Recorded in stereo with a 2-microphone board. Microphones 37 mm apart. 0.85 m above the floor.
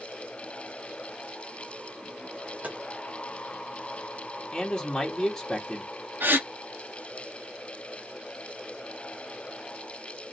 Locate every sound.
2.6 s tapping: 40° right (ahead or behind), 1.2 m
4.5 s a man speaking: 15° left (ahead or behind), 1.6 m
6.2 s a gasp: 70° right (ahead or behind), 1.0 m